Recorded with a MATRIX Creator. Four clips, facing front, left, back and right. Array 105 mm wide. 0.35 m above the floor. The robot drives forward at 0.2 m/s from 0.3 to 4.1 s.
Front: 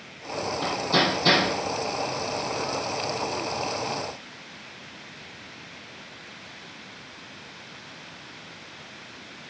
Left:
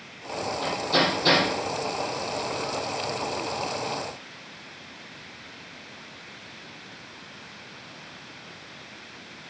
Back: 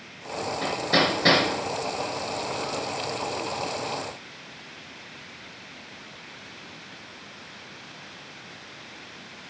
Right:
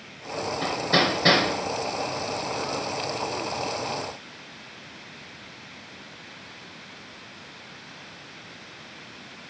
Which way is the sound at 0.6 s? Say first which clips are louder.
Right 1 dB, back 1 dB; 135° right.